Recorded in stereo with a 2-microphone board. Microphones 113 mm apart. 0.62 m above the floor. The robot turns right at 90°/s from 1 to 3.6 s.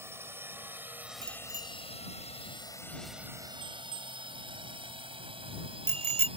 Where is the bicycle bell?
45° left (ahead or behind); by 6.3 s 75° right (ahead or behind).